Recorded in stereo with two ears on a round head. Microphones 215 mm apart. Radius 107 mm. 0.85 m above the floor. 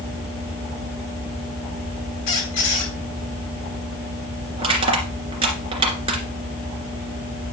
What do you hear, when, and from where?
2.3 s a squeak: 75° left (ahead or behind), 3 m
4.6 s crushing: 25° right (ahead or behind), 2.5 m